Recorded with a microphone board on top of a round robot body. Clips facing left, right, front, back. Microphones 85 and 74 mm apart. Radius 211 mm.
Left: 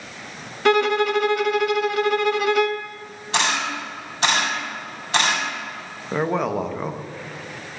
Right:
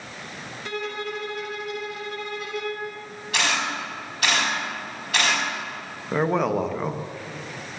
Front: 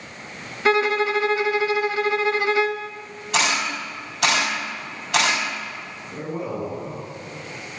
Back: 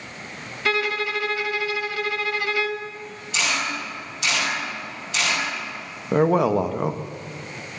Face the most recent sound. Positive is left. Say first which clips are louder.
# even, back 12 dB
turn(degrees=180)